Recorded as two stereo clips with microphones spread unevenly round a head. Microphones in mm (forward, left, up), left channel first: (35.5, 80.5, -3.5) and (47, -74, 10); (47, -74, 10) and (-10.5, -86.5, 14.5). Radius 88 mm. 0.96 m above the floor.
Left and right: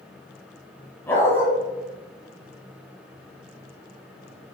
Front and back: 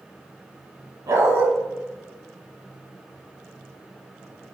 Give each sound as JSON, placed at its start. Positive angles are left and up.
{"t": 1.1, "sound": "a dog barking", "azimuth_deg": 175, "distance_m": 1.3}